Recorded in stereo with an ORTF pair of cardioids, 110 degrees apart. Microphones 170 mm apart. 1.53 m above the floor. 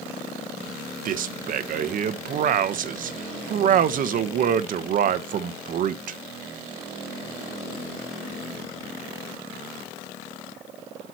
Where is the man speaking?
55° right, 1.2 m.